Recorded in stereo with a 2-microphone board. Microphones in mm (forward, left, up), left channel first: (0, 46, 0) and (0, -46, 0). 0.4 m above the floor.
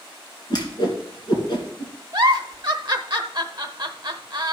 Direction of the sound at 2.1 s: 45° right (ahead or behind).